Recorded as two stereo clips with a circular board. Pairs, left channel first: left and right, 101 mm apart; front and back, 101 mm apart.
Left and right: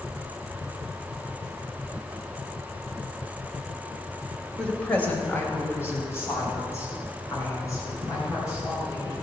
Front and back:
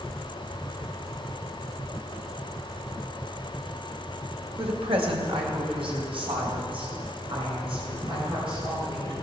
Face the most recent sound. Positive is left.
turn(degrees=145)